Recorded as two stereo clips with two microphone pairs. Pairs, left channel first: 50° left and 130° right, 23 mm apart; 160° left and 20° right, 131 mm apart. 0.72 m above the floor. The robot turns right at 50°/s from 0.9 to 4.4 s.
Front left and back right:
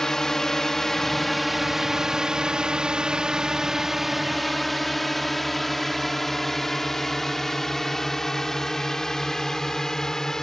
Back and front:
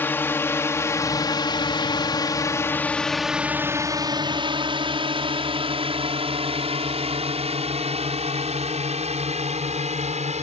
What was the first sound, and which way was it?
A drone, 100° left.